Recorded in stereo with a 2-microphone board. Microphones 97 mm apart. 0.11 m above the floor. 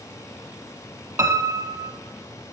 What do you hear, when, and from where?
1.2 s a piano: 25° right (ahead or behind), 1.2 m